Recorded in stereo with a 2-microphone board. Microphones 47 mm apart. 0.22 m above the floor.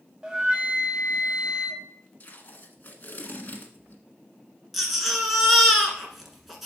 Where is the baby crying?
5° right (ahead or behind), 1.5 m.